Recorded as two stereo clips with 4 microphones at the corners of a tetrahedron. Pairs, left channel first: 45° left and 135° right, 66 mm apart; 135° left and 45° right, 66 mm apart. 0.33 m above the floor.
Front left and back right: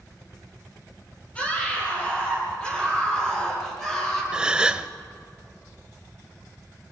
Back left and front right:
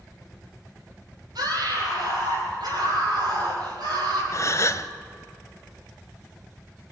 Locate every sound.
1.4 s a scream: 25° right, 8.5 m; by 4.2 s 35° right, 8 m
4.3 s a gasp: 150° left, 0.7 m